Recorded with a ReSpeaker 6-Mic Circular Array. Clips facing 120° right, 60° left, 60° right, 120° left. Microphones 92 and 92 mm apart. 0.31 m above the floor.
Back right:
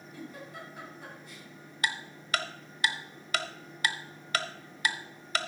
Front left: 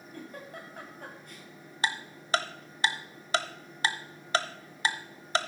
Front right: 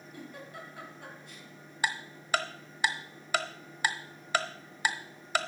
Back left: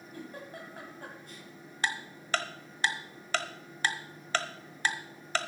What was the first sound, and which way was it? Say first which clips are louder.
A giggle: even, back left 2 dB; 85° left.